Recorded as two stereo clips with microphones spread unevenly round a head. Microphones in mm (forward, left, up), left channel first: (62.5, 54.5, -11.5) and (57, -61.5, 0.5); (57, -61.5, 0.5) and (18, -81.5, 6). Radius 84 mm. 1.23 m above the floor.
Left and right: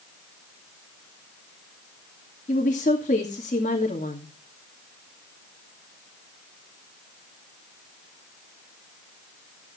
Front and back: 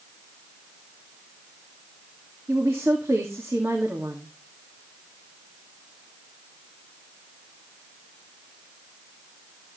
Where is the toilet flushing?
I don't hear a toilet flushing.